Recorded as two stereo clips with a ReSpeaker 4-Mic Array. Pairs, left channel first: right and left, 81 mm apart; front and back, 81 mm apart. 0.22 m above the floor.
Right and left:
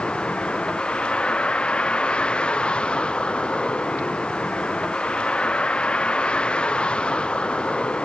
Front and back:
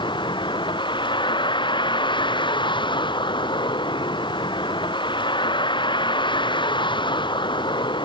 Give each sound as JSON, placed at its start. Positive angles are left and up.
{"t": 0.0, "sound": "a vehicle", "azimuth_deg": -15}